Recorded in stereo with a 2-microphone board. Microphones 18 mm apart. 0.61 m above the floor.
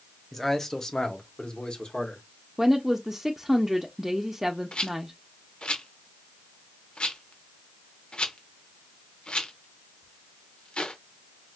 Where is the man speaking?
10° left (ahead or behind), 0.8 m; by 2.2 s 70° left (ahead or behind), 1.4 m.